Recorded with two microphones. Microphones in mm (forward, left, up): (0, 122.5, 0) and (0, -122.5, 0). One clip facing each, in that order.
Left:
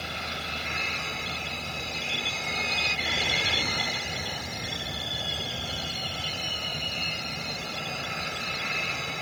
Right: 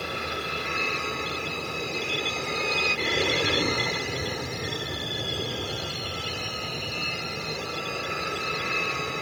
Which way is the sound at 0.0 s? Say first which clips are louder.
Right 6 dB; 65° right (ahead or behind).